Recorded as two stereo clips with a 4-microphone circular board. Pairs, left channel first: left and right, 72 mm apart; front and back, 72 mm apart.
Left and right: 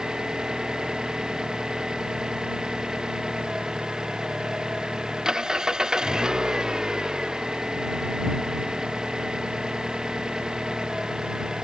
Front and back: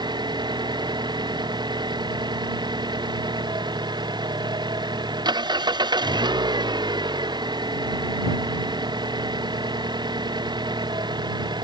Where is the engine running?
170° right.